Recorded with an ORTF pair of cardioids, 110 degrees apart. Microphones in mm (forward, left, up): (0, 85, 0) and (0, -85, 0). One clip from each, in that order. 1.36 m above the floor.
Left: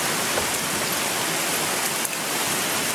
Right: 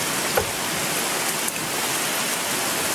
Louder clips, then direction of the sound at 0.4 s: Right 1 dB; 45° right.